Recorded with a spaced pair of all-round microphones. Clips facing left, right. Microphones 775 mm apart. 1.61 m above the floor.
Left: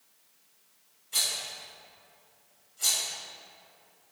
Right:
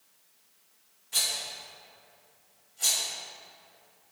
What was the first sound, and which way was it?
A rattle, 30° right (ahead or behind).